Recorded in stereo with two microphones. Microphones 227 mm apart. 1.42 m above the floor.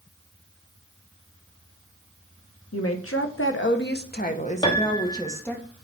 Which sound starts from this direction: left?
A woman speaking, at 2.7 s.